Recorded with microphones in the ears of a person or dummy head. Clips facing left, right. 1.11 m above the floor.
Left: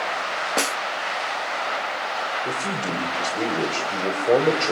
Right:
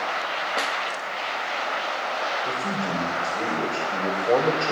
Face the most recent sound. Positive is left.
turn(degrees=20)  # may be behind; listen again after turning